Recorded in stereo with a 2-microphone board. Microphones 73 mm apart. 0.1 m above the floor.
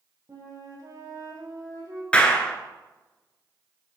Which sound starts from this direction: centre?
A clap, at 2.1 s.